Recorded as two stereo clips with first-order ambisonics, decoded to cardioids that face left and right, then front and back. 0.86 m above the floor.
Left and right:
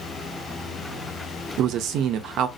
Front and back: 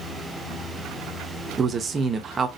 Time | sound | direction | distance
1.6 | a man speaking | 115° right | 0.7 m